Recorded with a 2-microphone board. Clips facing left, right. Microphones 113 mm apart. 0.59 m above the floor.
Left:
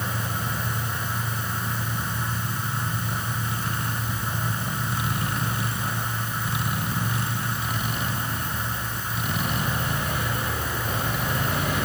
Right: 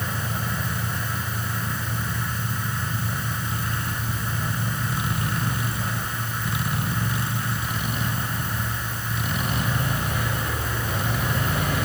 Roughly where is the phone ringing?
I don't hear a phone ringing.